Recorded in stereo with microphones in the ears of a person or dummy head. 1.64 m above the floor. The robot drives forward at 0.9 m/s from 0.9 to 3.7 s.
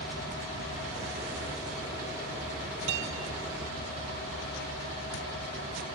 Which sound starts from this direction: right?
A guitar, at 2.9 s.